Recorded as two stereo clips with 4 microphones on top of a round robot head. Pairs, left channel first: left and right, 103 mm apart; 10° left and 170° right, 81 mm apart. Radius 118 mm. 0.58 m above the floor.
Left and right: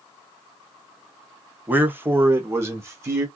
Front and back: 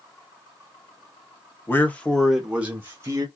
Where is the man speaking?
30° right, 1.2 m; by 3.3 s 145° right, 1.4 m.